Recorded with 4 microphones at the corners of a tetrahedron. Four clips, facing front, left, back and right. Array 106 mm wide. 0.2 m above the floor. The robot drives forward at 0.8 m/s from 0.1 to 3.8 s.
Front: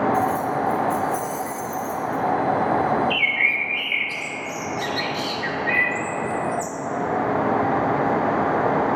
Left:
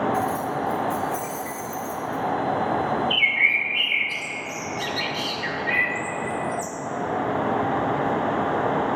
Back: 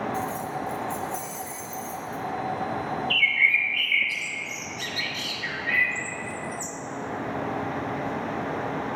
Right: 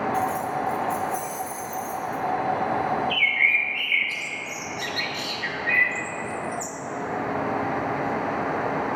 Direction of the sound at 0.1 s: 65° left.